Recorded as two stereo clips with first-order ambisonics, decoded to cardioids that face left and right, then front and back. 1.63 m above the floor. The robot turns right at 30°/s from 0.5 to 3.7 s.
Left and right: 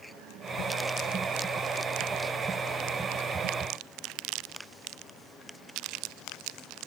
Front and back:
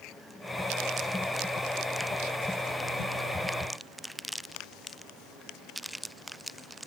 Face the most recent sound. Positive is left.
No sound to turn to.